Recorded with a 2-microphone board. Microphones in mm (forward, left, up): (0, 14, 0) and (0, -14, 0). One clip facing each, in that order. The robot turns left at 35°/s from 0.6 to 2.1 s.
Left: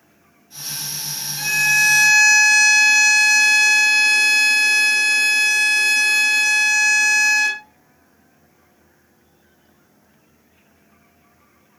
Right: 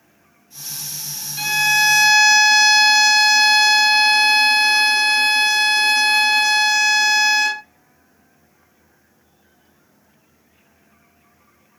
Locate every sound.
1.4 s a violin: 20° right (ahead or behind), 0.7 m; by 7.6 s 10° right (ahead or behind), 0.7 m